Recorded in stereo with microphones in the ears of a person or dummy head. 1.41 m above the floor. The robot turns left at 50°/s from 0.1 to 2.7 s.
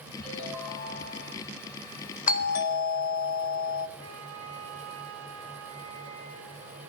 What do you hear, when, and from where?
0.2 s a ringtone: 150° right, 7 m; by 1.4 s 155° left, 7 m
2.3 s a doorbell: 40° left (ahead or behind), 0.7 m; by 3.9 s 65° left (ahead or behind), 0.7 m
4.0 s a flute: 70° right (ahead or behind), 1.5 m